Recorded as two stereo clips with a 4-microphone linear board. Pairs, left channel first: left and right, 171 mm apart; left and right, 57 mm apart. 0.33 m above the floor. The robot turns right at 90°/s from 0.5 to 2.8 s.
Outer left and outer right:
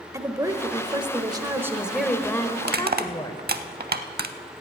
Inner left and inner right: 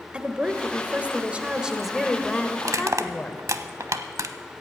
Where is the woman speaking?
20° right (ahead or behind), 0.9 m; by 3.4 s 25° left (ahead or behind), 0.9 m.